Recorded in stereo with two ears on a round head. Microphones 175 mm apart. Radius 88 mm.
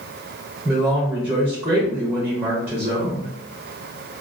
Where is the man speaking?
10° right (ahead or behind), 0.6 m.